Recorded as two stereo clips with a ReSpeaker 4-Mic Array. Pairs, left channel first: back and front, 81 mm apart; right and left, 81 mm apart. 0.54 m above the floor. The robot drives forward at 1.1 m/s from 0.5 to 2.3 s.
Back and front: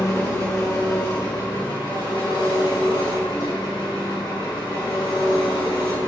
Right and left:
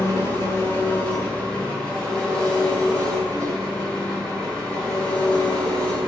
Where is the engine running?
140° right, 1.4 m; by 6.1 s 165° right, 3 m.